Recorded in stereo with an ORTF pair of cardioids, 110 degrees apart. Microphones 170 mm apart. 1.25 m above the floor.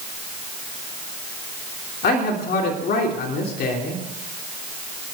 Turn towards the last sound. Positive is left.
turn(degrees=65)